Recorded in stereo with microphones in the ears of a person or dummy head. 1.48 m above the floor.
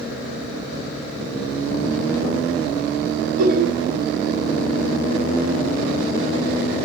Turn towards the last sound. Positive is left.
turn(degrees=-55)  # may be behind; listen again after turning